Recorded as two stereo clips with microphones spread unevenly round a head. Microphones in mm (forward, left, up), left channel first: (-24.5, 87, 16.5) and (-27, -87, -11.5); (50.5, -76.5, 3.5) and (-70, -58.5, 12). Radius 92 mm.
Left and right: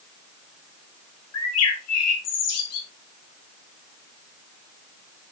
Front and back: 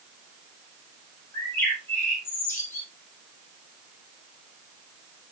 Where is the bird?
70° left, 1.6 m.